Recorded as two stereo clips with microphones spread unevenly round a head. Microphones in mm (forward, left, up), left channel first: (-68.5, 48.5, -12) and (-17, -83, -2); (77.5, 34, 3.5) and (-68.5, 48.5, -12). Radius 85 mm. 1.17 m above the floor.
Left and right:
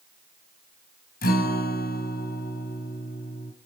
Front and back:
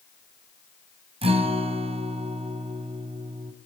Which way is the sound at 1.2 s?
125° left.